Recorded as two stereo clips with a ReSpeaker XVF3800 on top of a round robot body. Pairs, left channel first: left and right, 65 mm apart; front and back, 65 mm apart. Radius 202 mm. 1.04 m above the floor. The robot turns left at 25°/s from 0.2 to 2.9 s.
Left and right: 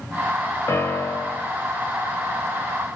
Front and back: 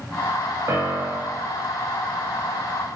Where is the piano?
135° left, 0.9 m; by 1.5 s 115° left, 0.9 m.